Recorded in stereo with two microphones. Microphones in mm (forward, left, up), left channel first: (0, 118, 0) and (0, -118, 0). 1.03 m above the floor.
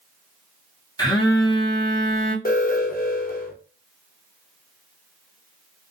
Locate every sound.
1.0 s a phone buzzing: 15° left (ahead or behind), 0.7 m
2.5 s an alarm: 40° left (ahead or behind), 0.6 m